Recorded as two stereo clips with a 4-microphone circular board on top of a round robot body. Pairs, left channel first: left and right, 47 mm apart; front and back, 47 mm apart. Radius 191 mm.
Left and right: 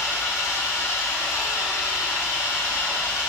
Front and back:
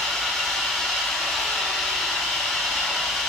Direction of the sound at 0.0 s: 90° left.